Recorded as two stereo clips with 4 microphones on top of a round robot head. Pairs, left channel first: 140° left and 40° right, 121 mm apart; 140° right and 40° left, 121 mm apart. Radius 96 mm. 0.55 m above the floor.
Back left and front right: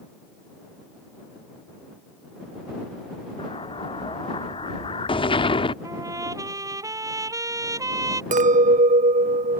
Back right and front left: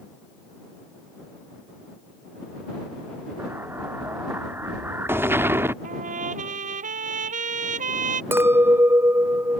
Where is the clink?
30° right.